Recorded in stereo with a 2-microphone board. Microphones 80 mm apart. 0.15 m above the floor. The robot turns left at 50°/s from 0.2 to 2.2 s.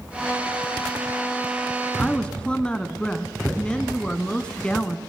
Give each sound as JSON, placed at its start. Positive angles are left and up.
{"t": 2.0, "sound": "a woman speaking", "side_deg": 15, "distance_m": 1.3}